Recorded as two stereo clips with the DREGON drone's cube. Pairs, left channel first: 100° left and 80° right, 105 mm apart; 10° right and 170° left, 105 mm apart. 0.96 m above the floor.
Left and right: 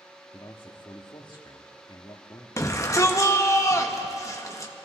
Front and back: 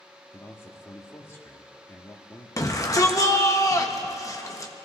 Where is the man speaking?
55° left, 1.5 m.